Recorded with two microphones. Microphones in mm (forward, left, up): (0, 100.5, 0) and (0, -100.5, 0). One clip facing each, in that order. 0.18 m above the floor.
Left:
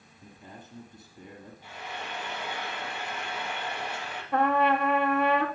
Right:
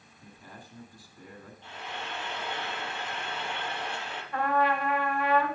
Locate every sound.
0.2 s a man speaking: 25° left (ahead or behind), 1.5 m
1.6 s frying: 10° left (ahead or behind), 4.5 m
4.3 s a trumpet: 70° left (ahead or behind), 1.4 m